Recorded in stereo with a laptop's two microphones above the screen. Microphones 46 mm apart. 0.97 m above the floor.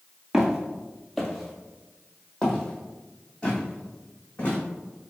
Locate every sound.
0.3 s footsteps: 10° right (ahead or behind), 1.1 m; by 4.6 s 25° left (ahead or behind), 2.5 m